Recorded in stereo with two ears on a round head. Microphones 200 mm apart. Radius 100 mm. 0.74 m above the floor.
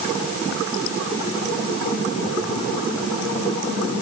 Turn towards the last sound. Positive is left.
No sound to turn to.